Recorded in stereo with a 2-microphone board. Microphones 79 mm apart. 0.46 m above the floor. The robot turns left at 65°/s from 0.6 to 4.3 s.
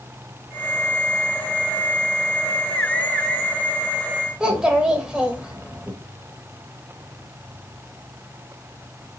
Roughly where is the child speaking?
Centre.